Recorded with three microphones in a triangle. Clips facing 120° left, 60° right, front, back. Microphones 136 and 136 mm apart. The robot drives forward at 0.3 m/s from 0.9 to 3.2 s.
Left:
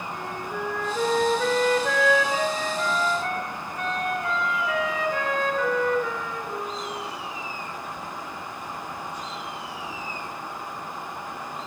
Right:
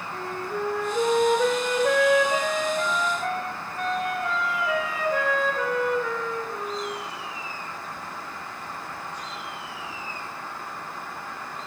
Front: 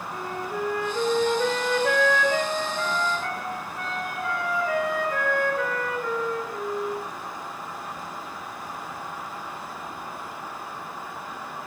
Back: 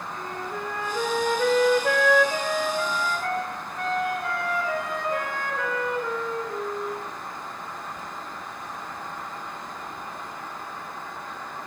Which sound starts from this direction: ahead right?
A flute, at 0.1 s.